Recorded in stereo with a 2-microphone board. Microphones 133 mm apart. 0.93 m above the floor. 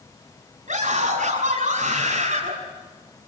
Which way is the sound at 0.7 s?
65° right (ahead or behind).